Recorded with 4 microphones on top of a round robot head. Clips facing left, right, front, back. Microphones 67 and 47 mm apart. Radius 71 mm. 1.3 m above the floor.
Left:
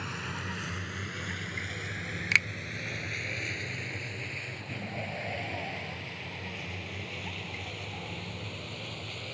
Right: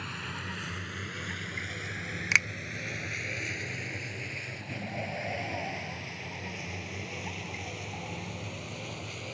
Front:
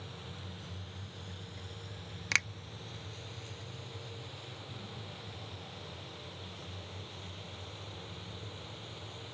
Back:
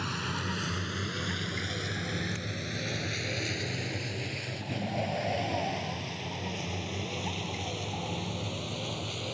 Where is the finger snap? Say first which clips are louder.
Right 1 dB, front 7 dB; 15° right.